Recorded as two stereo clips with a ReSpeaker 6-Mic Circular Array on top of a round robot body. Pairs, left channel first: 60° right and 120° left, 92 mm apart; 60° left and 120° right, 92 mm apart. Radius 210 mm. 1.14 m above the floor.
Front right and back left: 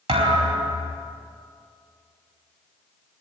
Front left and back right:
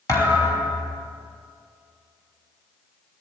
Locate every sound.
0.1 s a thud: 115° left, 4 m